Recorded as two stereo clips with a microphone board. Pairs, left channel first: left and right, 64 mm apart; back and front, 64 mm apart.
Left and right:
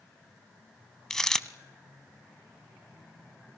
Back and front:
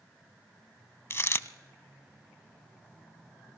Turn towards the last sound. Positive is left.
turn(degrees=170)